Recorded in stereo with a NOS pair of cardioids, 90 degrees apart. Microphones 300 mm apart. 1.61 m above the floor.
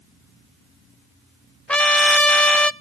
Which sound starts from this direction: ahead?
A trumpet, at 1.7 s.